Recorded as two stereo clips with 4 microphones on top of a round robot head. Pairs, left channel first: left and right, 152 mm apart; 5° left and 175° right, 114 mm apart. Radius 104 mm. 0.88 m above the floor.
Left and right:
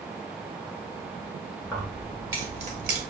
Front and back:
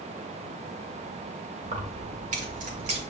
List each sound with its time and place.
1.6 s keys jangling: 170° left, 1.8 m; by 3.0 s 120° right, 1.0 m